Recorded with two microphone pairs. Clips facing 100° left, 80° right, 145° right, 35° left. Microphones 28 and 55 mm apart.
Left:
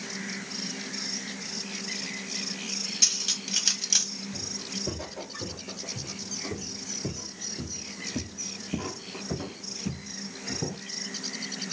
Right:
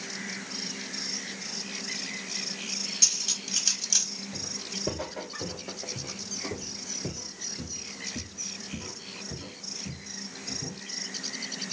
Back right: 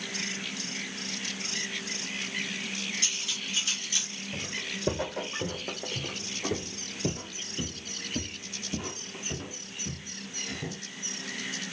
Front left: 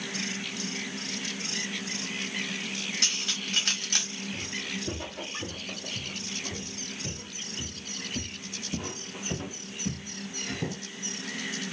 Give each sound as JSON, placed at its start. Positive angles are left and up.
{"t": 3.0, "sound": "cutlery clinking", "azimuth_deg": 30, "distance_m": 1.2}
{"t": 4.3, "sound": "footsteps", "azimuth_deg": -135, "distance_m": 2.0}